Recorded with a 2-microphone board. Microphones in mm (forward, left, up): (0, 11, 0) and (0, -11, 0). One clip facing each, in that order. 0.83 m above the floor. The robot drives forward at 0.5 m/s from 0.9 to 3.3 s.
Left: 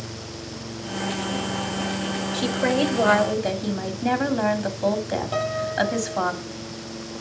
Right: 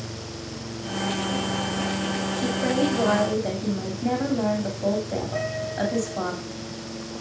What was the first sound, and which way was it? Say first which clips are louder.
A woman speaking: left 3 dB; 60° left (ahead or behind).